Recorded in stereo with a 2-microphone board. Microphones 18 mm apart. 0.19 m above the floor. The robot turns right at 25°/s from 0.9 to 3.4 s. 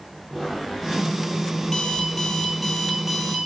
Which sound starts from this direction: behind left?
An alarm clock, at 1.6 s.